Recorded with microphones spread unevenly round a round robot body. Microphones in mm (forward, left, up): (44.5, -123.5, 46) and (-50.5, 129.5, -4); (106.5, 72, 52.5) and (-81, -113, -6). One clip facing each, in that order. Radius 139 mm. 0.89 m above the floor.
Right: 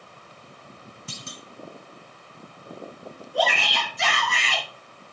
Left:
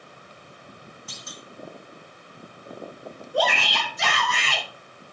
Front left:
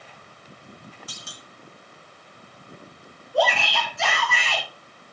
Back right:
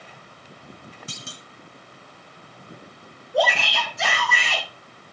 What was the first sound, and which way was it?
A clunk, 70° right.